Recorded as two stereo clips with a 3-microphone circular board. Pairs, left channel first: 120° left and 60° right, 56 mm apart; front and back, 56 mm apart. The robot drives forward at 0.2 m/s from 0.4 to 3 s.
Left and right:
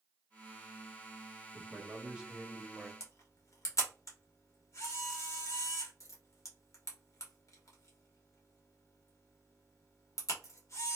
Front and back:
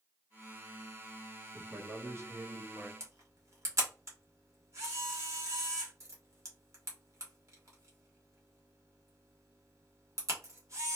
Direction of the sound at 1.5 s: 125° right.